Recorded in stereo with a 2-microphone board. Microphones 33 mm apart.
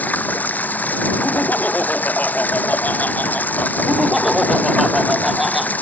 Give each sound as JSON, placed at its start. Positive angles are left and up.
{"t": 0.0, "sound": "running water", "side_deg": 65}
{"t": 1.2, "sound": "laughter", "side_deg": 60}
{"t": 3.9, "sound": "laughter", "side_deg": -5}